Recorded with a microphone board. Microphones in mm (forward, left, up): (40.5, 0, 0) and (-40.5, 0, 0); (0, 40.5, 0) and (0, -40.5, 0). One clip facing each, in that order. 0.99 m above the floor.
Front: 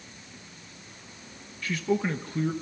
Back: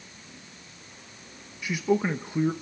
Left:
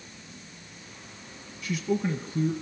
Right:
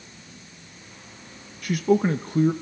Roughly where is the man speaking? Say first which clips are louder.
Back 2 dB, right 7 dB; right.